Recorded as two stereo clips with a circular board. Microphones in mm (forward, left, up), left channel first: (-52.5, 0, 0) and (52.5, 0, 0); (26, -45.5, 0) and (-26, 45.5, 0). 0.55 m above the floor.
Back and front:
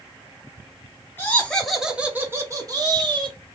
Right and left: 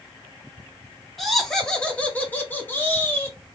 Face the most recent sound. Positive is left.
turn(degrees=0)